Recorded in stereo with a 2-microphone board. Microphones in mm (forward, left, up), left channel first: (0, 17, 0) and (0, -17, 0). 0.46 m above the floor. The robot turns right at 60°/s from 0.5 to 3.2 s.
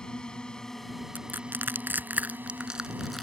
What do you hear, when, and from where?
0.0 s a drone: 25° left (ahead or behind); by 3.2 s 45° right (ahead or behind)
1.1 s crushing: 60° right (ahead or behind); by 3.2 s 5° left (ahead or behind)